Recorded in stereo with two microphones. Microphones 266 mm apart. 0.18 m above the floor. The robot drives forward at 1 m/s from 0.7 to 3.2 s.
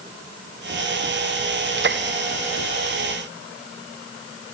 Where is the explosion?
No explosion in this recording.